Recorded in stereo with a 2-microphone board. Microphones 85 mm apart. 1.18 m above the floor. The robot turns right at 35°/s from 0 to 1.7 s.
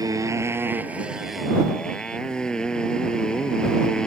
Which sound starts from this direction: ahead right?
A motorcycle, at 0.0 s.